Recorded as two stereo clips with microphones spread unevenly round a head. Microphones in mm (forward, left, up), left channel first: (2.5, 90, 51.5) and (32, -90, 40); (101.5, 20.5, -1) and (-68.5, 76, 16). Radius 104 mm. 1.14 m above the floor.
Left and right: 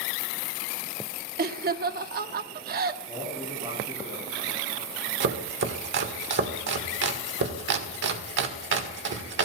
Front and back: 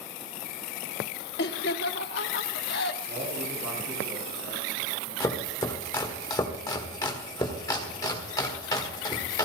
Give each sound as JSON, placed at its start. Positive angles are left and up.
{"t": 1.4, "sound": "laughter", "azimuth_deg": -50, "distance_m": 1.2}
{"t": 3.1, "sound": "a man speaking", "azimuth_deg": -165, "distance_m": 7.5}
{"t": 5.2, "sound": "chopping", "azimuth_deg": -90, "distance_m": 1.6}